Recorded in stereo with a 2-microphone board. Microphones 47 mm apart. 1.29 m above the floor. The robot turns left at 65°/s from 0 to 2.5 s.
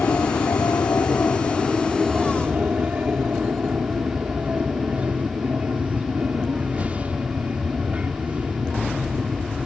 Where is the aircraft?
130° left; by 9.7 s 30° right.